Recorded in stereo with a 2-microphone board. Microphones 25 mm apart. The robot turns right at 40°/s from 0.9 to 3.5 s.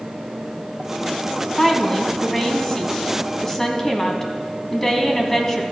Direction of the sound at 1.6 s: 10° left (ahead or behind).